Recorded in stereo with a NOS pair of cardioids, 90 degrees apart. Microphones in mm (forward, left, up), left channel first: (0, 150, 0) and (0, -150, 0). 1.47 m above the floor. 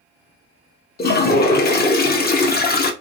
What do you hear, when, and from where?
1.0 s a toilet flushing: 35° left, 0.7 m